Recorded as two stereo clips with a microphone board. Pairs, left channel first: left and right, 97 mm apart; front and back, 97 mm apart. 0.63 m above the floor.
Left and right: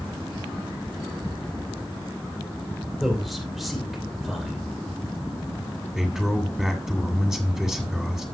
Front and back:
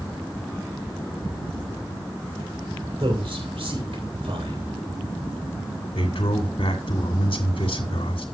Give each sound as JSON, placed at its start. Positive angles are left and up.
{"t": 3.0, "sound": "a man speaking", "azimuth_deg": 180, "distance_m": 2.5}
{"t": 6.0, "sound": "a man speaking", "azimuth_deg": -5, "distance_m": 2.5}